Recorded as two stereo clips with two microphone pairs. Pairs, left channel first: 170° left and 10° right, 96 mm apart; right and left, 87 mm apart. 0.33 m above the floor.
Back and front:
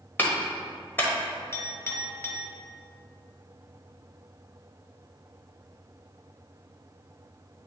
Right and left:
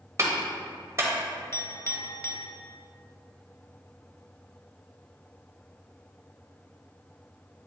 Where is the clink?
135° right, 0.9 m.